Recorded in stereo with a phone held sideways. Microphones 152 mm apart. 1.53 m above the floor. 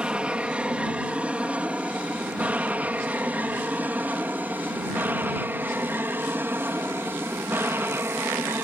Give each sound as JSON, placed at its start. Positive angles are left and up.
{"t": 0.0, "sound": "an aircraft", "side_deg": -5}